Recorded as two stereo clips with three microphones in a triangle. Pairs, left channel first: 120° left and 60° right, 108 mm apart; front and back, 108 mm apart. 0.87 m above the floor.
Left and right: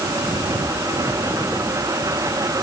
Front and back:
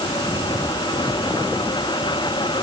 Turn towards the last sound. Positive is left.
No sound to turn to.